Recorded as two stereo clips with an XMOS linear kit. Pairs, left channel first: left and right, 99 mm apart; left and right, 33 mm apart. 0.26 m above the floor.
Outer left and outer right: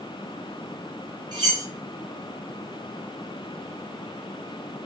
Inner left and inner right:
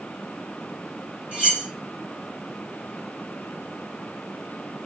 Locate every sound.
1.3 s cutlery clinking: 45° right (ahead or behind), 3 m